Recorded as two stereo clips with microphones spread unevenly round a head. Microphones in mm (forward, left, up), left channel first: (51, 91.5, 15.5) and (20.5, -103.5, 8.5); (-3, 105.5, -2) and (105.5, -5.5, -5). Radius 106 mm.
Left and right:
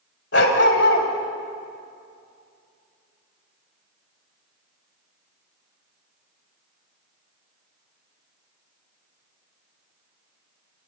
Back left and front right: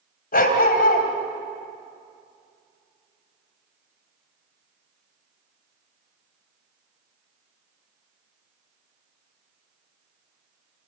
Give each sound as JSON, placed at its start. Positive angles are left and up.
{"t": 0.3, "sound": "a dog barking", "azimuth_deg": 120, "distance_m": 3.0}